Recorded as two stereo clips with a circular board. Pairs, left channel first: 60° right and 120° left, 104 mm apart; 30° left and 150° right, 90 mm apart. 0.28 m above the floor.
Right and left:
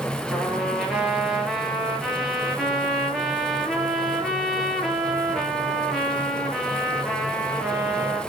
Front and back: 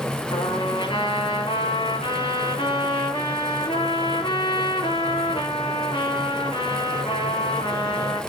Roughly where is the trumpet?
Ahead left.